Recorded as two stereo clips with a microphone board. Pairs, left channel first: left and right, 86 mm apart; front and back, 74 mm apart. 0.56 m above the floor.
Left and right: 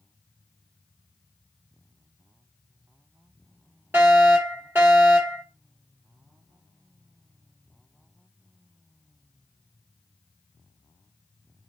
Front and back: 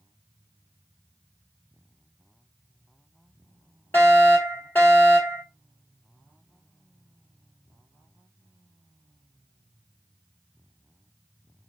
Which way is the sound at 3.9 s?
40° right.